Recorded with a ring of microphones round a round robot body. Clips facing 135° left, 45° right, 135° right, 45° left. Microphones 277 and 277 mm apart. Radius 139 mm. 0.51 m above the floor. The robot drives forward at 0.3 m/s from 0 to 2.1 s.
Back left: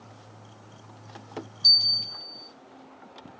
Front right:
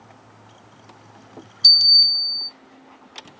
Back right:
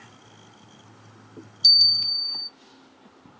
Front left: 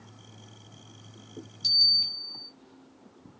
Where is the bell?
85° right, 0.9 m; by 2.5 s 95° right, 0.9 m.